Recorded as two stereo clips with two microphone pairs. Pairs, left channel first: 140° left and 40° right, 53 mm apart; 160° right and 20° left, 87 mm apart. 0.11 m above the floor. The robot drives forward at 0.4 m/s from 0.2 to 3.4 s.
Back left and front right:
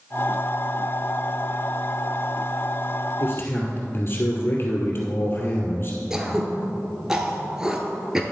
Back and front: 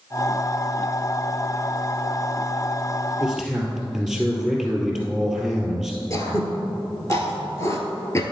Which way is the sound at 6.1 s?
115° right.